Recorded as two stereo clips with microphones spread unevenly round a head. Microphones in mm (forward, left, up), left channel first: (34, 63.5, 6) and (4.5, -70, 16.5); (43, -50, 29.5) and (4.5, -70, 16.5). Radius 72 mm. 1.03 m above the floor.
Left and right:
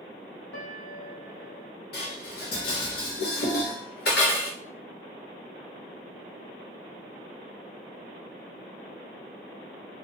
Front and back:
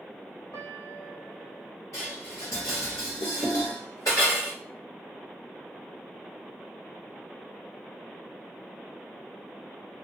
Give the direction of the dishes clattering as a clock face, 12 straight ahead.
10 o'clock.